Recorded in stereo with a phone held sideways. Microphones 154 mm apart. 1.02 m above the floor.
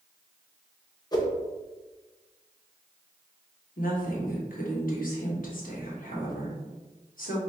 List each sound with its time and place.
1.1 s a whoosh: 25° left (ahead or behind), 0.7 m
3.8 s a woman speaking: 70° left (ahead or behind), 1.3 m